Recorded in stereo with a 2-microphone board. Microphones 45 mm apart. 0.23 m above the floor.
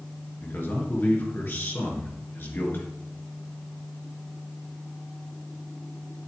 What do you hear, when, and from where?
0.4 s a man speaking: 50° left (ahead or behind), 3.5 m